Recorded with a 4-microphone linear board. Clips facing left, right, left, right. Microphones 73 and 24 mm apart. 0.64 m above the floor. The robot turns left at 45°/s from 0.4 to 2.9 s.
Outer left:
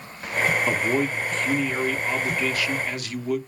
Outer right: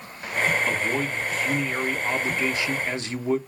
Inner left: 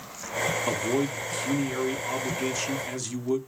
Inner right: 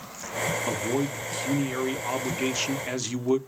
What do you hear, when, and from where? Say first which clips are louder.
0.7 s a man speaking: outer left 3 dB, inner left 1 dB; 25° left, 0.6 m; by 3.4 s 75° right, 0.6 m